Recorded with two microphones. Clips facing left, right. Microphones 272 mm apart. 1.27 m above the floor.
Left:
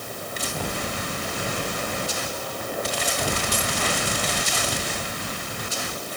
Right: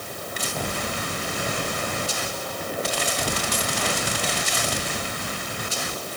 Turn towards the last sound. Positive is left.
No sound to turn to.